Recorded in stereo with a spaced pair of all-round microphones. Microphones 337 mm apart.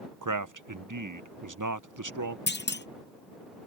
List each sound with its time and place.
0.2 s a man speaking: 70° right (ahead or behind)
2.5 s a clunk: 35° left (ahead or behind)